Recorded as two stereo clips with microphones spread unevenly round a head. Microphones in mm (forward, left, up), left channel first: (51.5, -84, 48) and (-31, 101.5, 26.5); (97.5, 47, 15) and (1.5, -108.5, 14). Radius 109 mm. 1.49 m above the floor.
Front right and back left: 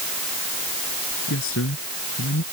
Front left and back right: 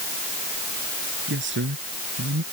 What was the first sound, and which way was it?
A man speaking, 100° right.